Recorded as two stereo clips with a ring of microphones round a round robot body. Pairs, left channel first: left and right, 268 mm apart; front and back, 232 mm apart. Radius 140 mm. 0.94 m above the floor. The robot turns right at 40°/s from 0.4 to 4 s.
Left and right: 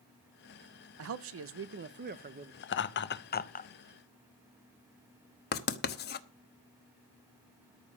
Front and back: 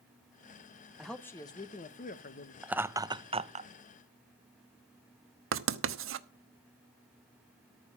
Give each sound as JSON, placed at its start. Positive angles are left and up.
{"t": 1.0, "sound": "a man speaking", "azimuth_deg": -90, "distance_m": 0.8}
{"t": 2.6, "sound": "laughter", "azimuth_deg": 95, "distance_m": 0.8}
{"t": 5.5, "sound": "writing", "azimuth_deg": 145, "distance_m": 0.9}